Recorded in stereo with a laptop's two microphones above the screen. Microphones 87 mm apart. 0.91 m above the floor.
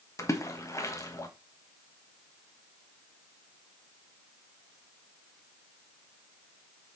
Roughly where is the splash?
Left.